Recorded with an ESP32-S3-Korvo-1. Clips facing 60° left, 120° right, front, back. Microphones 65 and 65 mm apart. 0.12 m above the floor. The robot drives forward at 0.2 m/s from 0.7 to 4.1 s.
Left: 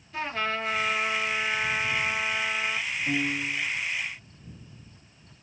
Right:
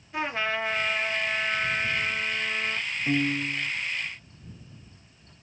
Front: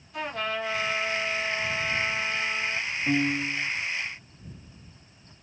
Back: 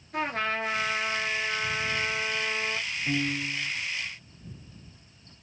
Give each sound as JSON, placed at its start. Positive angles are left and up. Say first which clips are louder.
{"t": 0.1, "sound": "a trumpet", "louder": "right 1 dB, back 2 dB", "azimuth_deg": 175, "distance_m": 1.0}
{"t": 3.1, "sound": "a piano", "louder": "right 4 dB, front 4 dB", "azimuth_deg": -65, "distance_m": 0.6}